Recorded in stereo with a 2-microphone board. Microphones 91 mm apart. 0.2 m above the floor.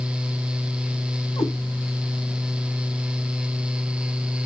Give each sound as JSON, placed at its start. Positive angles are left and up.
{"t": 1.4, "sound": "a cat meowing", "side_deg": 75, "distance_m": 5.0}